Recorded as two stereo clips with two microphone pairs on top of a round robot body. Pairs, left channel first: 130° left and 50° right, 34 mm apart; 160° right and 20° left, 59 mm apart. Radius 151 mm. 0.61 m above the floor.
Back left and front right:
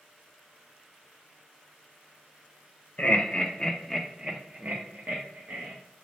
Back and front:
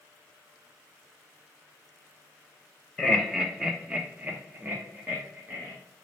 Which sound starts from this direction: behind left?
Laughter, at 3.0 s.